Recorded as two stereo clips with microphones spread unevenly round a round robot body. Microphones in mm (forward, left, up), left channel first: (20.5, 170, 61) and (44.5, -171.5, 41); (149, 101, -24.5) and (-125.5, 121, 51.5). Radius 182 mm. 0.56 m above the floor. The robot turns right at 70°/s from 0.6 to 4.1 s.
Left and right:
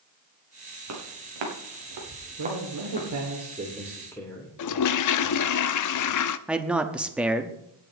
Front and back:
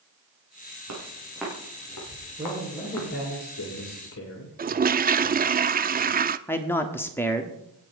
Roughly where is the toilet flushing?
Left.